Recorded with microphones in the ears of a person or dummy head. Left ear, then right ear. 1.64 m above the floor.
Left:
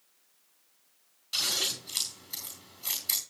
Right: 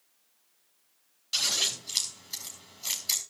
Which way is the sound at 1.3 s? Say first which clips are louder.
Right 2 dB; 10° right (ahead or behind).